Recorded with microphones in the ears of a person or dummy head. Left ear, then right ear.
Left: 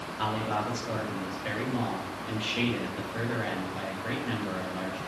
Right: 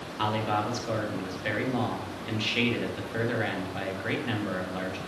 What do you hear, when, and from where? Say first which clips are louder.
0.2 s a man speaking: right 3 dB; 25° right (ahead or behind), 1.9 m